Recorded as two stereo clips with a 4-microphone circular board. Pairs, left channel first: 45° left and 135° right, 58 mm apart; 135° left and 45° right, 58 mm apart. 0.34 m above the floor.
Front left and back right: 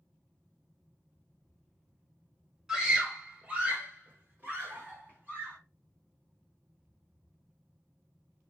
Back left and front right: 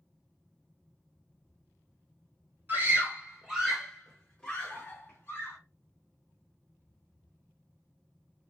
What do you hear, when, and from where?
2.7 s a scream: 65° right, 1.2 m; by 5.6 s 175° left, 1.6 m